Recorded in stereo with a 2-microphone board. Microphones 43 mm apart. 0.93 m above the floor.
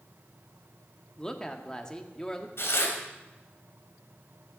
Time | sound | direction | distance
1.2 | a woman speaking | 20° left (ahead or behind) | 1.6 m
2.6 | tearing paper | 75° left (ahead or behind) | 3 m